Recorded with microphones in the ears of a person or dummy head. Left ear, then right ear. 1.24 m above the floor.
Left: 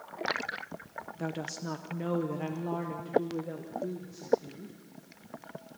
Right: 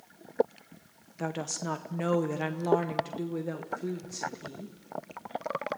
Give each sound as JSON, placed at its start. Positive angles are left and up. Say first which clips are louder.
{"t": 1.2, "sound": "a woman speaking", "louder": "right 4 dB", "side_deg": -20, "distance_m": 0.8}